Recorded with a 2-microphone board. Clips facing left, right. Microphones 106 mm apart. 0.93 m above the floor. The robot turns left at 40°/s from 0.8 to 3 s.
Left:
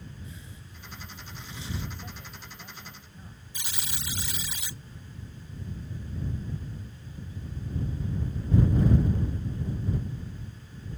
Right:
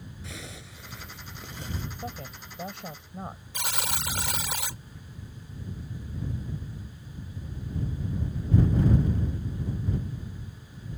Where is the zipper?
95° right; by 1.8 s 140° right.